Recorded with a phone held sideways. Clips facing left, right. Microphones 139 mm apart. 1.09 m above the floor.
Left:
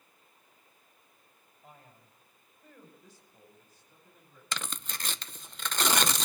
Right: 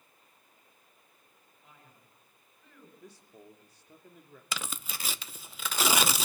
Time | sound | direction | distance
1.6 | a man speaking | 40° left (ahead or behind) | 5.5 m
3.0 | a man speaking | 70° right (ahead or behind) | 3 m
4.5 | tearing paper | 5° right (ahead or behind) | 0.5 m